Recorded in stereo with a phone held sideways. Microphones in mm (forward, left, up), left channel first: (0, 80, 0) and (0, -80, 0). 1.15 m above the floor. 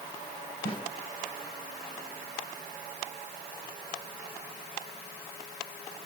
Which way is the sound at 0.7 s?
70° left (ahead or behind).